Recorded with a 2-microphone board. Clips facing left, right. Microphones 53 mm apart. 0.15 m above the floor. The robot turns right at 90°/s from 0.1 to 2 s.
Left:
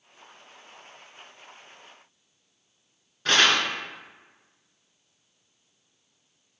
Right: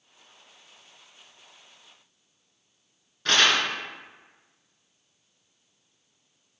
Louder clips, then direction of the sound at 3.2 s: Left 1 dB; 5° left (ahead or behind).